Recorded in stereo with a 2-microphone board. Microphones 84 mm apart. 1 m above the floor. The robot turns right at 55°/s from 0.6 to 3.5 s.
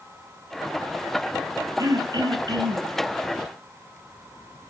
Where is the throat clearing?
120° right, 1.6 m; by 2.9 s 60° right, 1.6 m.